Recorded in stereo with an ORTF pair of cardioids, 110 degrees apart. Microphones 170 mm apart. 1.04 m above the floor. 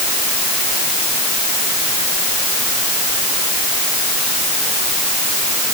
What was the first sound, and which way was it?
Only background noise.